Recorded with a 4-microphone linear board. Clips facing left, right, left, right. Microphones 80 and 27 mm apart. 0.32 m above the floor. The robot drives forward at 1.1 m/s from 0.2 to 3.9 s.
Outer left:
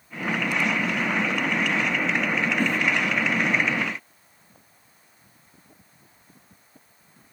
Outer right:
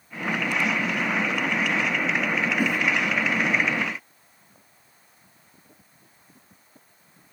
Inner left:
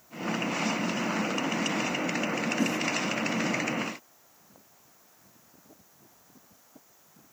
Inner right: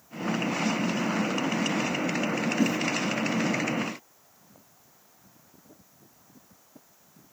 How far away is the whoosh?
About 1.3 m.